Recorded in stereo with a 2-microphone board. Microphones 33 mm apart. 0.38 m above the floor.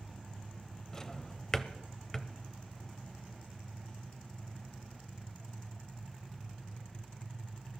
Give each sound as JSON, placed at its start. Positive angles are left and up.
{"t": 0.9, "sound": "a drawer", "side_deg": 15, "distance_m": 0.5}